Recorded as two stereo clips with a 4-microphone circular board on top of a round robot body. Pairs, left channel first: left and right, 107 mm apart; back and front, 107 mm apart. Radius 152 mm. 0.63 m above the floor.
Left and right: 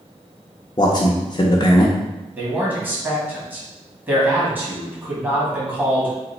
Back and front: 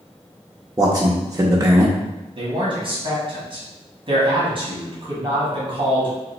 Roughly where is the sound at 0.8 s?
Ahead left.